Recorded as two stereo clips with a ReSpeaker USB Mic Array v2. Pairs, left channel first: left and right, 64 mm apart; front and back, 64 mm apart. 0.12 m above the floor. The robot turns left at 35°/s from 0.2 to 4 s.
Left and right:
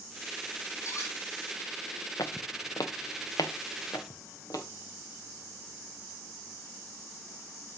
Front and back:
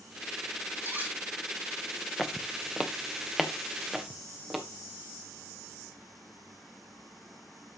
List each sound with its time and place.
0.8 s cutlery clinking: 125° left, 2.5 m; by 1.2 s 115° left, 2.5 m
2.2 s footsteps: 85° left, 1.0 m; by 4.6 s 90° left, 2.5 m